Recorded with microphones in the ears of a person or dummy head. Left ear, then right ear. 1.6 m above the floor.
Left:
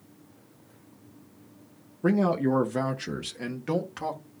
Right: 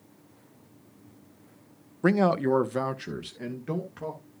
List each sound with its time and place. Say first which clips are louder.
2.0 s a man speaking: right 2 dB; 40° right (ahead or behind), 0.7 m; by 4.2 s 25° left (ahead or behind), 1.5 m